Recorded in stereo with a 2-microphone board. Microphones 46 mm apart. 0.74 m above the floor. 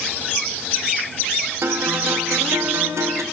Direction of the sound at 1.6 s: 80° right.